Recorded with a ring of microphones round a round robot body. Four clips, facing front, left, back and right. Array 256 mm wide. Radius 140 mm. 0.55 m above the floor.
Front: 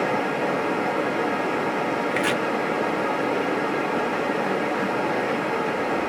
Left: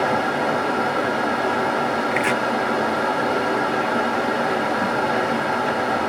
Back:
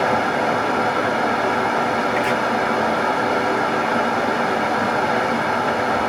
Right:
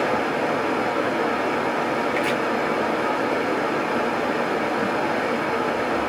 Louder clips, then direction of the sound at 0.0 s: Left 2 dB, back 5 dB; 155° left.